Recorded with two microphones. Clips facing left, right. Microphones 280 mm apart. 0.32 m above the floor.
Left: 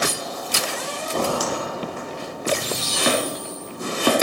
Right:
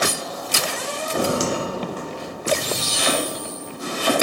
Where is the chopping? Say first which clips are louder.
Left 3 dB; 55° left (ahead or behind), 3 m.